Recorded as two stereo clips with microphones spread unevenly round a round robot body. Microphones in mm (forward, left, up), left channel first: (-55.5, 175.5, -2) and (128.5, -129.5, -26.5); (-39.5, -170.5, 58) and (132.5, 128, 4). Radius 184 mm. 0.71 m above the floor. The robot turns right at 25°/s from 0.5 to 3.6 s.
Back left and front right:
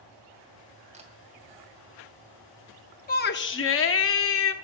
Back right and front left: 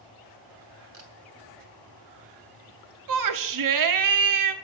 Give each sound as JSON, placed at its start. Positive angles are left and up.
{"t": 0.9, "sound": "a camera shutter", "azimuth_deg": 10, "distance_m": 2.5}
{"t": 3.1, "sound": "a shout", "azimuth_deg": 55, "distance_m": 1.2}